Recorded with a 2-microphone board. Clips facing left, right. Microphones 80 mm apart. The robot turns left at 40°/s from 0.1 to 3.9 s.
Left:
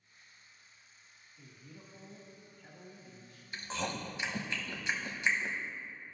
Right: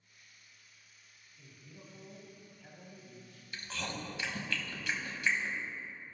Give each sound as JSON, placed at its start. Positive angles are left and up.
{"t": 1.4, "sound": "a man speaking", "azimuth_deg": 30, "distance_m": 1.6}
{"t": 3.5, "sound": "chewing", "side_deg": 30, "distance_m": 0.9}